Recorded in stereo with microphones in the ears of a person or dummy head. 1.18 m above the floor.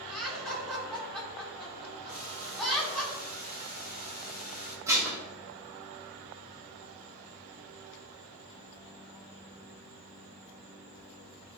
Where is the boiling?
50° left (ahead or behind), 1.1 m.